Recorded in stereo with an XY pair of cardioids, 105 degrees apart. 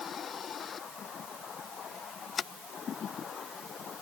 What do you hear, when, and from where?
Only background noise.